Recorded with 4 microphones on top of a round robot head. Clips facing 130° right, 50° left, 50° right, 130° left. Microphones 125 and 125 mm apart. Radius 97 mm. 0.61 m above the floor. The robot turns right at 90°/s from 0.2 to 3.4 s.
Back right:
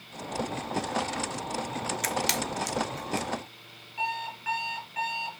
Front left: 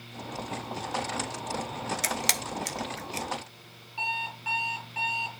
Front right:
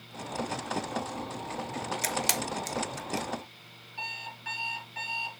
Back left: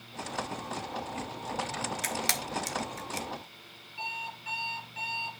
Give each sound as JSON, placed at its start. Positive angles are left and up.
{"t": 2.0, "sound": "a camera shutter", "azimuth_deg": -5, "distance_m": 1.1}
{"t": 4.0, "sound": "an alarm clock", "azimuth_deg": -15, "distance_m": 4.5}